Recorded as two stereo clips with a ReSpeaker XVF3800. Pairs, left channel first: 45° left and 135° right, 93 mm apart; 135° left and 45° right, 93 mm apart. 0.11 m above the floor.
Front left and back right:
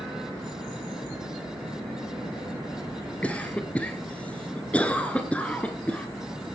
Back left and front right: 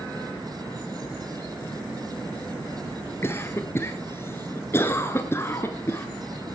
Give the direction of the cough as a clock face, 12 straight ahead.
8 o'clock.